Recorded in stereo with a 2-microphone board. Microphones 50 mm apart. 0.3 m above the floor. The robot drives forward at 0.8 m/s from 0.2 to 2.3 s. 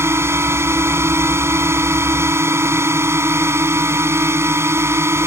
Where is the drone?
60° right (ahead or behind).